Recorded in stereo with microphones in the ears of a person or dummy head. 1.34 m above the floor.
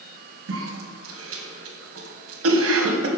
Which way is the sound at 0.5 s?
70° right (ahead or behind).